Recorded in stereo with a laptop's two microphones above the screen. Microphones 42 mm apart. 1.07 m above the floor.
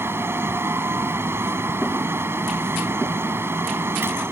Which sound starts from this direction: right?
A fan, at 0.0 s.